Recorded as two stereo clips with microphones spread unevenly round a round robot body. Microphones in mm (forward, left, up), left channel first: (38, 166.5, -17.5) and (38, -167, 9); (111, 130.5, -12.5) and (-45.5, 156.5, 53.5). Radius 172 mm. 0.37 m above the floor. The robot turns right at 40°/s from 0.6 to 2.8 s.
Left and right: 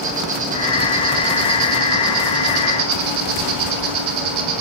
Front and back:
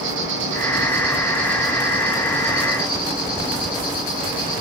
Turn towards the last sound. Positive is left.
turn(degrees=-70)